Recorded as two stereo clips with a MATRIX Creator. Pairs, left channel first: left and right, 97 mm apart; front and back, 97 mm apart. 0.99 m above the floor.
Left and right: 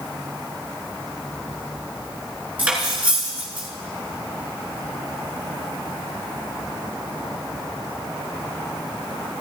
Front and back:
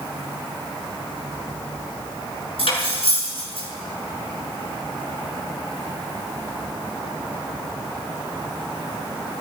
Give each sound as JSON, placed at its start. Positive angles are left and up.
{"t": 2.6, "sound": "cutlery clinking", "azimuth_deg": -15, "distance_m": 6.0}